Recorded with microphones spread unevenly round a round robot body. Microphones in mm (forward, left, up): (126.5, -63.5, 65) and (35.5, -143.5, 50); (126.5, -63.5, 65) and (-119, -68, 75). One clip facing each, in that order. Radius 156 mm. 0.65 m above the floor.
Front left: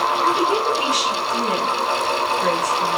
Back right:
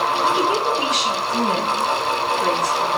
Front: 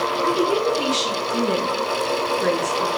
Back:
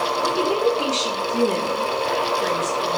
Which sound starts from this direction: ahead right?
A woman speaking, at 0.2 s.